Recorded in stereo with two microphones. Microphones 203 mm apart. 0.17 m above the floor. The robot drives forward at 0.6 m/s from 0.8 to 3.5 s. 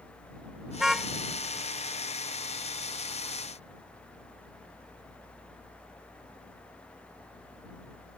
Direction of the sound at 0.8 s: 5° right (ahead or behind).